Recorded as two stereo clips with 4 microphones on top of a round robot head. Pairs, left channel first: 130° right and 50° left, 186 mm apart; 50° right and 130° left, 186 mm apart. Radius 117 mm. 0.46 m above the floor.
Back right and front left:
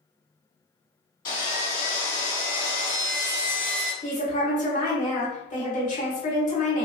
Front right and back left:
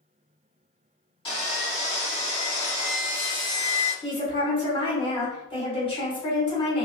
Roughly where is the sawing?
Right.